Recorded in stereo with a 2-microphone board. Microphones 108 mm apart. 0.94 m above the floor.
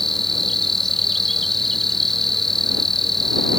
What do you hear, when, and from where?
0.0 s an insect: centre (ahead or behind)